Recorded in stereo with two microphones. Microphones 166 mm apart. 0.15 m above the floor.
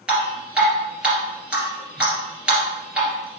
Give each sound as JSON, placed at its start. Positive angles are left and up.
{"t": 0.1, "sound": "dripping", "side_deg": -5, "distance_m": 3.0}